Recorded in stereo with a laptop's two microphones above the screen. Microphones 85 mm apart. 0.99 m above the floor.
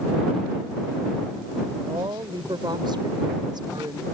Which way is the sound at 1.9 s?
60° right (ahead or behind).